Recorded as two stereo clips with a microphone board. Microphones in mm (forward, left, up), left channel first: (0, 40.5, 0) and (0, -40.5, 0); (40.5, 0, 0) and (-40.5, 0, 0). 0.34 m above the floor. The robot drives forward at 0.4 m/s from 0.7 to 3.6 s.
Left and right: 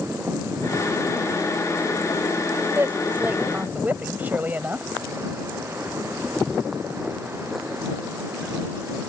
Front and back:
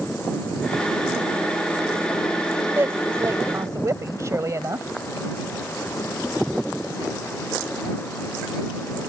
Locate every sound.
2.8 s a woman speaking: 140° right; by 4.9 s 150° right